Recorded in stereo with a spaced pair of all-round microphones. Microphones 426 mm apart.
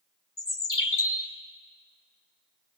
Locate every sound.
0.4 s a bird: 45° left (ahead or behind), 1.0 m